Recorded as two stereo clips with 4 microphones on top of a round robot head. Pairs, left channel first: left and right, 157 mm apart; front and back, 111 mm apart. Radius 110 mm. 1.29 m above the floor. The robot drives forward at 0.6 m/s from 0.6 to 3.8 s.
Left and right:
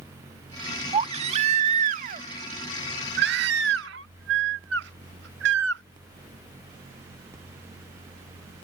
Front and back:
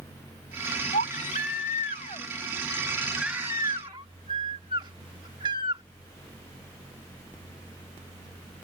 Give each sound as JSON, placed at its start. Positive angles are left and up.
{"t": 0.9, "sound": "a baby crying", "azimuth_deg": -40}